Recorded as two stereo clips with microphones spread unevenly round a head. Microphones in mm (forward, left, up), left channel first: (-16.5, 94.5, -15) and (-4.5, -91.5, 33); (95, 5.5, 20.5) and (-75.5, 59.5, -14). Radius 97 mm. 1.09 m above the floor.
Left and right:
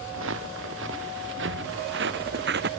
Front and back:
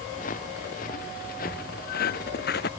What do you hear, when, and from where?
0.1 s footsteps: 70° right; by 2.7 s 55° right